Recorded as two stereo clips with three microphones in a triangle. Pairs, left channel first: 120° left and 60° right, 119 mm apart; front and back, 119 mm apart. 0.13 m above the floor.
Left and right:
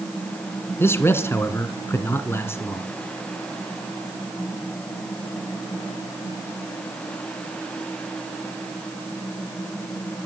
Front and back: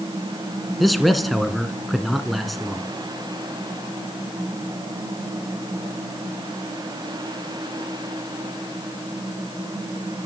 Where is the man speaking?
90° left, 1.4 m.